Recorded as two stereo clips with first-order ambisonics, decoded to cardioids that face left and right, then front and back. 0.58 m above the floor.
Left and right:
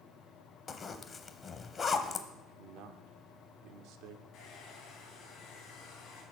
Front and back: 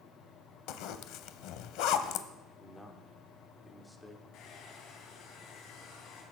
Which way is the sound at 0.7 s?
20° left.